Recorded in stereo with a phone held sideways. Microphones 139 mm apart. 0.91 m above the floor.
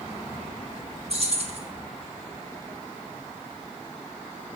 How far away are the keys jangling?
About 1.0 m.